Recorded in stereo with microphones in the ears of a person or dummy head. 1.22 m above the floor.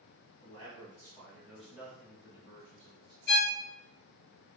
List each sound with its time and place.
0.4 s a man speaking: 35° left (ahead or behind), 1.7 m; by 3.2 s 35° right (ahead or behind), 2 m
3.3 s a violin: 50° left (ahead or behind), 0.6 m